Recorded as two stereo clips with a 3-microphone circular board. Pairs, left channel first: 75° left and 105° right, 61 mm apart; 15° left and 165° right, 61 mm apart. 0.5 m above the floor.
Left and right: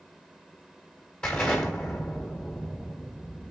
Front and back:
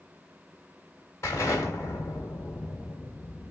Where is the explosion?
5° left, 1.6 m.